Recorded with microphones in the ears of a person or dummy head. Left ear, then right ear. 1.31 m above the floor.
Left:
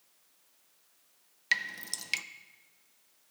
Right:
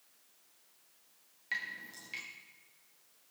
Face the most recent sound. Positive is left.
turn(degrees=70)  # may be behind; listen again after turning